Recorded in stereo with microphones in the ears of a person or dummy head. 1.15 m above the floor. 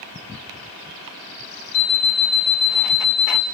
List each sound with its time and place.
1.7 s an alarm clock: 60° left (ahead or behind), 1.7 m